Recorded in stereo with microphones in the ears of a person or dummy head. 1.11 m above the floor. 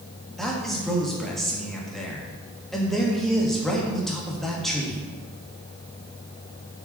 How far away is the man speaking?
About 1.3 m.